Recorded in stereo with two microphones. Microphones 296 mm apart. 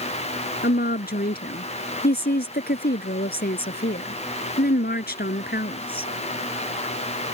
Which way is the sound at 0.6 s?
30° left (ahead or behind).